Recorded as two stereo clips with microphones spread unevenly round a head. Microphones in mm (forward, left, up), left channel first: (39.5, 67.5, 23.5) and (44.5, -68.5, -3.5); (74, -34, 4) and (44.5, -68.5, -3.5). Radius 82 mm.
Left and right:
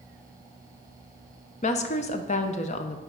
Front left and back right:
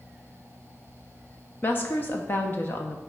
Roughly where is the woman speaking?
Left.